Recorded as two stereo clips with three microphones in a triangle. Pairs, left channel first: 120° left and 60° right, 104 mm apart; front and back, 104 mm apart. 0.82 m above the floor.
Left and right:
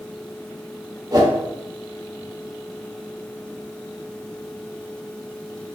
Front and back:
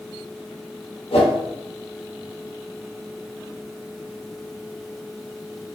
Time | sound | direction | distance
1.1 | a whoosh | 10° right | 0.7 m